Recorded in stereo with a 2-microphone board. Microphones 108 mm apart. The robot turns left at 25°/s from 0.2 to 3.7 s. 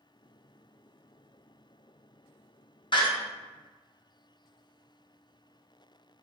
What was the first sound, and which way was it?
A door slam, 50° left (ahead or behind).